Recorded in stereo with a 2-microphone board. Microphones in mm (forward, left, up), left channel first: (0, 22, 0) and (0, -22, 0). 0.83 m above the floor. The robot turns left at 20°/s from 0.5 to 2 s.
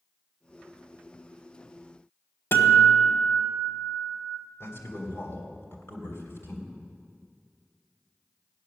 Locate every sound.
2.5 s a guitar: 70° left (ahead or behind), 1.6 m
4.6 s a man speaking: 65° left (ahead or behind), 3 m